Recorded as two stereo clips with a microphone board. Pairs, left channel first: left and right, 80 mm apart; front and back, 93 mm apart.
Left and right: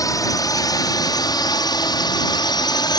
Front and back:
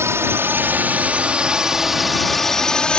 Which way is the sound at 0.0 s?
120° left.